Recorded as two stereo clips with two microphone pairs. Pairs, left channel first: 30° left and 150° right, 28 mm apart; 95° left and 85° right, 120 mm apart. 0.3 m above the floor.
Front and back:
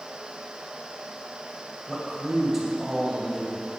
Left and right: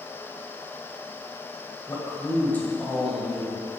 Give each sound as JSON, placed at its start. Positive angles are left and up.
{"t": 1.9, "sound": "a man speaking", "azimuth_deg": 65, "distance_m": 1.5}